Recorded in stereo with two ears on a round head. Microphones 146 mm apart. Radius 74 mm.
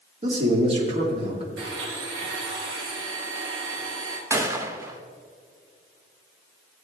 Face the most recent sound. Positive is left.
turn(degrees=-15)  # may be behind; listen again after turning